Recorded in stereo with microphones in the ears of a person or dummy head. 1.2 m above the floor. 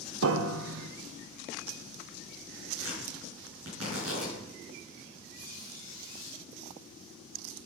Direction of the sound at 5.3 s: 60° right (ahead or behind).